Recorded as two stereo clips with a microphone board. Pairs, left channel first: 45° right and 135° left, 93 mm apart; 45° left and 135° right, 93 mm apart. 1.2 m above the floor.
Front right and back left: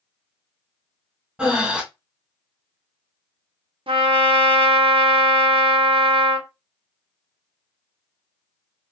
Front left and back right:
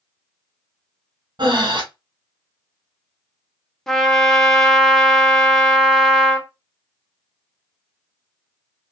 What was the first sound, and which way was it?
Breathing, 150° right.